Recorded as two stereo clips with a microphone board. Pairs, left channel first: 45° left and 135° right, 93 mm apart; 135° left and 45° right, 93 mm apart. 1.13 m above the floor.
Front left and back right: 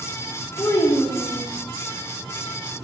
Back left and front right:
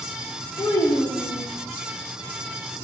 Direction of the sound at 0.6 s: 95° left.